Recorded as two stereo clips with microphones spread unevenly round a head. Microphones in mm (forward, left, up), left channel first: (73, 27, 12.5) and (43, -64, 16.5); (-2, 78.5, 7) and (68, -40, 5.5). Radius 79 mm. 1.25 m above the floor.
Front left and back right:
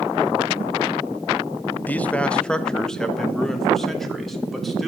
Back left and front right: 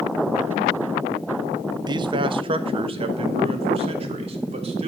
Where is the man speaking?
Straight ahead, 0.8 m; by 4.9 s 15° right, 3 m.